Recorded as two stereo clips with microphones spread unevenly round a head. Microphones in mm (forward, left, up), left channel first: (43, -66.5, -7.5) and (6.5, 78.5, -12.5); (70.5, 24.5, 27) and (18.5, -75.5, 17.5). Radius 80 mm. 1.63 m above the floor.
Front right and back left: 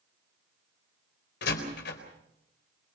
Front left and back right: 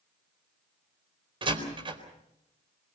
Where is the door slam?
75° right, 4 m.